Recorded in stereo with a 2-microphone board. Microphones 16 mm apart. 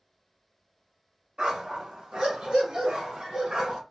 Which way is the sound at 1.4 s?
75° right (ahead or behind).